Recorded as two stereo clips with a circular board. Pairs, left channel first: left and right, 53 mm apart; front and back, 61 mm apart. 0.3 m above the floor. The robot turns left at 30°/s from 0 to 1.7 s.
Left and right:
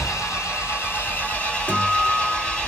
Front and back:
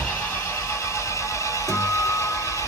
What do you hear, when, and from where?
0.0 s an engine running: 70° left, 2 m; by 2.7 s 20° left, 2 m
1.7 s a guitar: 25° left, 2 m